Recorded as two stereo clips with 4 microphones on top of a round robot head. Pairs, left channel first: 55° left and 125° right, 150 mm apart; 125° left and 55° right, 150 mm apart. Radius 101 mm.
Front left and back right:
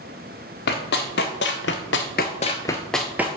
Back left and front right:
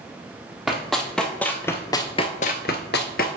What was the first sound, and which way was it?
Running footsteps, 35° left.